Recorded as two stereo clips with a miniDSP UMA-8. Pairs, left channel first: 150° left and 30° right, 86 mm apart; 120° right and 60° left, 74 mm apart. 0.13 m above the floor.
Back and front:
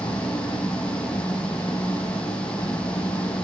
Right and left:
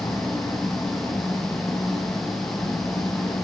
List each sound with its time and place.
0.0 s an engine running: 170° right, 6 m